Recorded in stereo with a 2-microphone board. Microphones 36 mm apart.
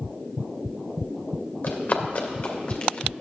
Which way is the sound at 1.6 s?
40° left (ahead or behind).